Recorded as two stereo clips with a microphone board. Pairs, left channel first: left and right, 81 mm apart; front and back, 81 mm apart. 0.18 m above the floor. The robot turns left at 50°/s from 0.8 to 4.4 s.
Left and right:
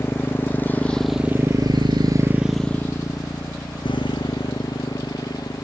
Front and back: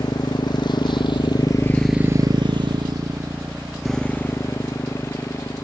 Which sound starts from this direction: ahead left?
A motorcycle, at 0.0 s.